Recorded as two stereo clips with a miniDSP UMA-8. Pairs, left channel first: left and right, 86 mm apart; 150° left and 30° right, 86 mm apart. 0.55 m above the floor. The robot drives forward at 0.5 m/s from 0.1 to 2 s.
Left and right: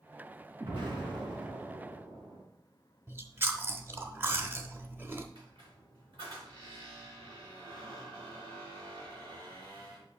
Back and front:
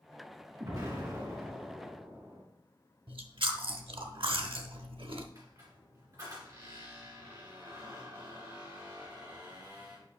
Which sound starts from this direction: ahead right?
Chewing, at 3.1 s.